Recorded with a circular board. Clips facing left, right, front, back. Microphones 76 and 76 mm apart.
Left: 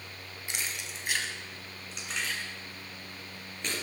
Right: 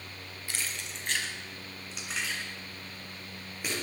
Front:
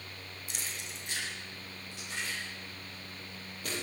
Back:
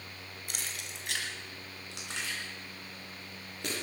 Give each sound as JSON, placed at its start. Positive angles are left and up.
{"t": 0.5, "sound": "keys jangling", "azimuth_deg": 160, "distance_m": 1.6}